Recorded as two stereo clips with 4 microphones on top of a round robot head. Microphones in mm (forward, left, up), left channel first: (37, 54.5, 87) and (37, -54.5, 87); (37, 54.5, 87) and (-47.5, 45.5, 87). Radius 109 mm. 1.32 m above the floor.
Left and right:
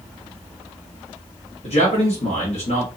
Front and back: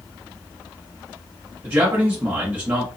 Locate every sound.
1.6 s a man speaking: 120° left, 1.1 m